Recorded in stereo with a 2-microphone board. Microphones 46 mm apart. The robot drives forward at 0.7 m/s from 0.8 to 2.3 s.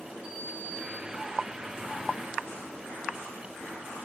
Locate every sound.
0.2 s a sliding door: 5° right (ahead or behind), 5.5 m